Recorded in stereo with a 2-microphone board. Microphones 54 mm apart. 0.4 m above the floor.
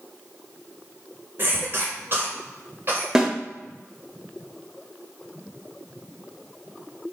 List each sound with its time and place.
1.4 s a cough: 45° right (ahead or behind), 1.6 m
3.1 s a snare drum: 10° right (ahead or behind), 0.6 m